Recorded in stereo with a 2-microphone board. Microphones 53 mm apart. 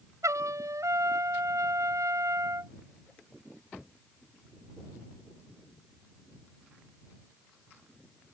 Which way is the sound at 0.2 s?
80° right.